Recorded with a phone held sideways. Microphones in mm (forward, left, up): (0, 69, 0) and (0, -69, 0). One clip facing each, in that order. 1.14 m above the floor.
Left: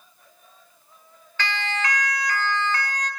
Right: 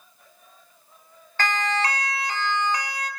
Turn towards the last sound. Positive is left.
turn(degrees=-10)  # may be behind; listen again after turning